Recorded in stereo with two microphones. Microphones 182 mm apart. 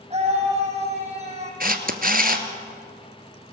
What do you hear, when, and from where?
0.1 s a scream: 35° right (ahead or behind), 6.5 m
1.6 s a camera shutter: 55° right (ahead or behind), 1.4 m